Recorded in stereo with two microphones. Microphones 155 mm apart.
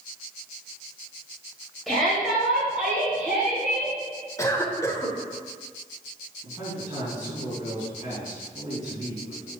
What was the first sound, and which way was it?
A shout, centre (ahead or behind).